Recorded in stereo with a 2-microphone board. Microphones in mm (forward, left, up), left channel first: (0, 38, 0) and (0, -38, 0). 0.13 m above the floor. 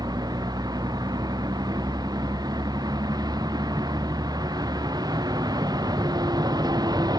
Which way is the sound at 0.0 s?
60° right (ahead or behind).